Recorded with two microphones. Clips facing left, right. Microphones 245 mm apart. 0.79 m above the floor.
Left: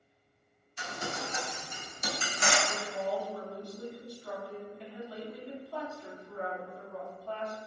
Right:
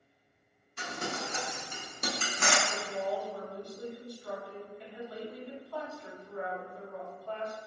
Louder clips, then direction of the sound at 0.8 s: Right 1 dB; 65° right (ahead or behind).